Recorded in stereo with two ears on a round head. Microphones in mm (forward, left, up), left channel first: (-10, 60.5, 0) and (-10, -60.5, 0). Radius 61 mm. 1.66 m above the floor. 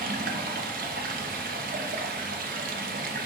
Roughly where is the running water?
Right.